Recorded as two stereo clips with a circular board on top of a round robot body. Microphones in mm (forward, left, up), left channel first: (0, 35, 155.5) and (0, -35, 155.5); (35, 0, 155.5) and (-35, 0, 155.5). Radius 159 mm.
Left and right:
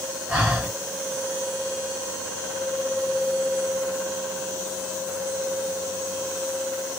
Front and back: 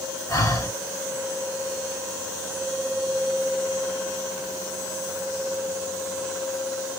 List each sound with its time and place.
0.3 s breathing: 20° right, 2 m